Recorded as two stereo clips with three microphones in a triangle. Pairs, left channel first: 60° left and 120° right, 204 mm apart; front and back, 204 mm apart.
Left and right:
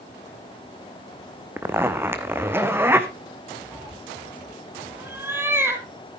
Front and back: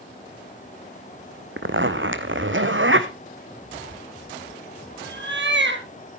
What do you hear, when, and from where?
1.6 s a zipper: 160° left, 1.3 m
3.7 s a cat meowing: 160° left, 2.0 m